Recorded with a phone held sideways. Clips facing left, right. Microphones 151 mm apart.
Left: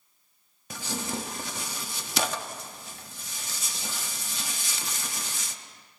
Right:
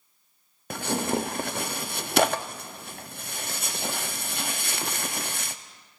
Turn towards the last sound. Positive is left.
turn(degrees=-60)  # may be behind; listen again after turning